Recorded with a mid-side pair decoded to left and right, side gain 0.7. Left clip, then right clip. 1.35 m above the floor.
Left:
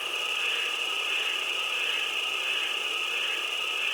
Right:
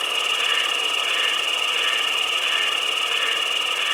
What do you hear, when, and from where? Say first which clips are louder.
0.0 s an insect: right 7 dB; 70° right, 1.9 m